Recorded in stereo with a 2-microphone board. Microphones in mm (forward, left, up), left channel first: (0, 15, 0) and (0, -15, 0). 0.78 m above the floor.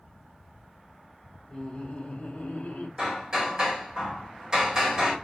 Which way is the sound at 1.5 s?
30° left (ahead or behind).